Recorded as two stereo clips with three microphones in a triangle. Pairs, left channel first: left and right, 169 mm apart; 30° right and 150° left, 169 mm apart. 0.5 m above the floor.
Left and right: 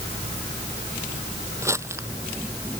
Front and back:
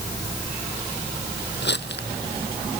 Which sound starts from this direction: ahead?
Crumpling, at 1.6 s.